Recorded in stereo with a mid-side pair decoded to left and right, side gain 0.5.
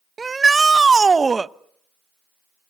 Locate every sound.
0.2 s a shout: 25° right, 0.7 m